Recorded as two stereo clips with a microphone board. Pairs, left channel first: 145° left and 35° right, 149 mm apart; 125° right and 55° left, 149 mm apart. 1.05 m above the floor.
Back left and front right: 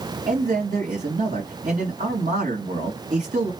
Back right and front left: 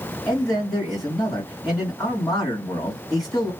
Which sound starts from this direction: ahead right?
A man speaking, at 0.3 s.